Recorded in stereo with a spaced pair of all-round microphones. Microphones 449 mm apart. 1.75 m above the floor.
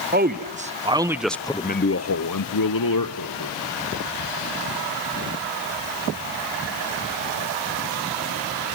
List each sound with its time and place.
0.1 s a man speaking: 20° right (ahead or behind), 1.4 m; by 3.6 s 45° left (ahead or behind), 1.4 m